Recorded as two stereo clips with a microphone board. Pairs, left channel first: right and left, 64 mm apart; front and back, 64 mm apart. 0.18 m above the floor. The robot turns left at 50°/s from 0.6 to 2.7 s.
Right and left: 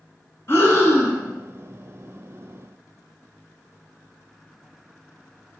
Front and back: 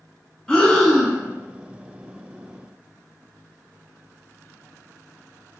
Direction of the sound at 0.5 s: 70° right.